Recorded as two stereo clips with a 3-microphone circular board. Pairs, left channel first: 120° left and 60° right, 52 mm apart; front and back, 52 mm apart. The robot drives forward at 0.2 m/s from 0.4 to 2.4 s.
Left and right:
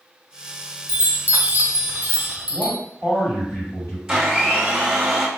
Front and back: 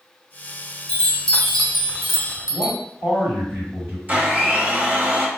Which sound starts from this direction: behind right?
A blender, at 4.1 s.